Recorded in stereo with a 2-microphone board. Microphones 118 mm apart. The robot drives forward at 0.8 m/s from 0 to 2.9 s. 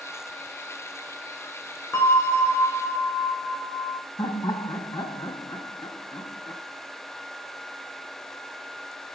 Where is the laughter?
30° left (ahead or behind), 1.4 m.